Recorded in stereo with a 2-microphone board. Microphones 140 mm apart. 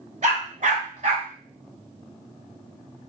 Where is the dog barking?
60° right (ahead or behind), 1.1 m; by 1.3 s 65° right (ahead or behind), 1.1 m.